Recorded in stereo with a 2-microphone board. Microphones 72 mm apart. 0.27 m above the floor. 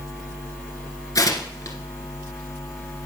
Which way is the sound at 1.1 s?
50° left (ahead or behind).